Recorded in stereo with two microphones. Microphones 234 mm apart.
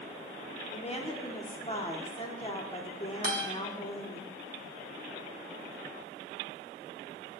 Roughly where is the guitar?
Right.